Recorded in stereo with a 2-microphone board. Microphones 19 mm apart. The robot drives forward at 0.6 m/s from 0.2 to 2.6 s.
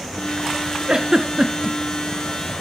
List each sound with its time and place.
0.9 s a giggle: 40° right (ahead or behind), 1.6 m; by 1.8 s 35° right (ahead or behind), 1.9 m